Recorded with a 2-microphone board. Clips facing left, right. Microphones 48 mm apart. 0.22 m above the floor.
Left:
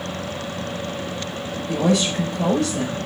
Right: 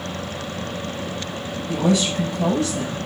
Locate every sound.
1.7 s a woman speaking: 65° left (ahead or behind), 6.5 m